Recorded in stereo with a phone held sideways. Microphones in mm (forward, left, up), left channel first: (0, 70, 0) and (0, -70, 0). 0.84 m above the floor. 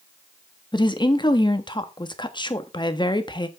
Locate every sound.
0.7 s a woman speaking: 35° left (ahead or behind), 1.1 m